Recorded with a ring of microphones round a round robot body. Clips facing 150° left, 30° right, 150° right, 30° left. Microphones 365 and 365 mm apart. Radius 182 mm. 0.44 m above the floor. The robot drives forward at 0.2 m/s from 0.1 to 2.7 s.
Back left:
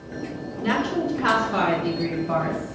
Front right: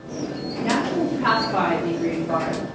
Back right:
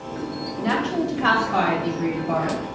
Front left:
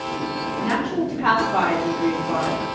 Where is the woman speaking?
110° right, 1.2 m; by 2.6 s 140° right, 1.3 m.